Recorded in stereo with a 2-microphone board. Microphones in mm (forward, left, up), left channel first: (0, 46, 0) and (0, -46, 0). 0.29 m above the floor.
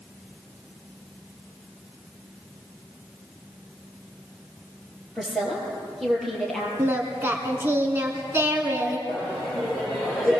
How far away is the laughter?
About 7 m.